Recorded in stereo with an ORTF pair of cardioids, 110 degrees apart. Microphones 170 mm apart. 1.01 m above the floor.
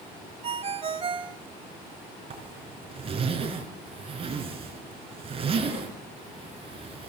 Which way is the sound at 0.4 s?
35° right.